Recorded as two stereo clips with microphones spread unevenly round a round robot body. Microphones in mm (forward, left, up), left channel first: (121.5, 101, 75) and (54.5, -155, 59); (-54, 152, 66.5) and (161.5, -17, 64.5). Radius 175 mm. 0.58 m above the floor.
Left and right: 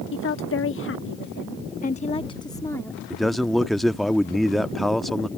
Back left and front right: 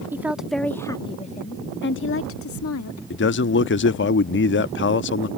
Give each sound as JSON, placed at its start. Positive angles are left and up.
{"t": 0.1, "sound": "a woman speaking", "azimuth_deg": 40}
{"t": 3.1, "sound": "a man speaking", "azimuth_deg": 170}